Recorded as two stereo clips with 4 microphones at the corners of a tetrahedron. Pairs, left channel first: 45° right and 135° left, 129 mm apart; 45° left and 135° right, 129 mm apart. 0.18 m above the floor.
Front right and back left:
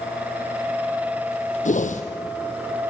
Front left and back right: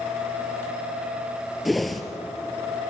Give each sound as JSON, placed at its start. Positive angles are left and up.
{"t": 1.6, "sound": "a whoosh", "azimuth_deg": -45, "distance_m": 1.7}